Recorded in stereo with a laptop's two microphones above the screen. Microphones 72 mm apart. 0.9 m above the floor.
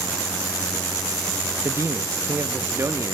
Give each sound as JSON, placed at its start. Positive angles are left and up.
{"t": 1.6, "sound": "a man speaking", "side_deg": -40, "distance_m": 0.8}